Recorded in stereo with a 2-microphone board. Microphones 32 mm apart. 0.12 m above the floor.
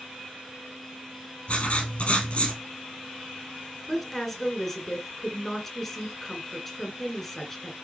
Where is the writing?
40° left (ahead or behind), 2.5 m.